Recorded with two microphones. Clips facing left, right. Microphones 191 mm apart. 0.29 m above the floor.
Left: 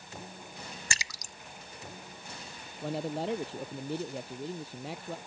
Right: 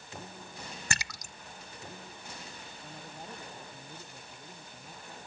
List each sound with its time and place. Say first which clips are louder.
0.9 s a splash: right 3 dB; 60° right (ahead or behind)
2.8 s a man speaking: left 16 dB; 80° left